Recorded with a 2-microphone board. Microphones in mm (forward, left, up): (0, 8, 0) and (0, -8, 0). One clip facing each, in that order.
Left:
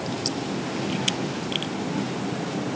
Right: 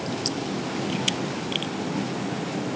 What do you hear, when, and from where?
Only background noise.